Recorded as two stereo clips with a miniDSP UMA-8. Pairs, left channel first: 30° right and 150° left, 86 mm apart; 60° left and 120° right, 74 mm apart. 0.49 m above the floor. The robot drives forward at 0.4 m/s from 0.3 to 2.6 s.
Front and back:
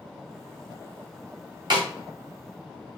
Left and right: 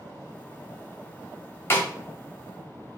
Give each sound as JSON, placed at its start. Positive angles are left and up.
{"t": 1.7, "sound": "a snare drum", "azimuth_deg": 120, "distance_m": 1.4}